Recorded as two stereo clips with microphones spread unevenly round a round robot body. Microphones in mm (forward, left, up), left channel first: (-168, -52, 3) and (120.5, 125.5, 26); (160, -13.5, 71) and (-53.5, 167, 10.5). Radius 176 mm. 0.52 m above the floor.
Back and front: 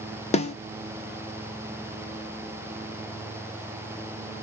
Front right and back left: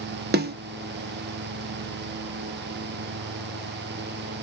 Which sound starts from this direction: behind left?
A snare drum, at 0.3 s.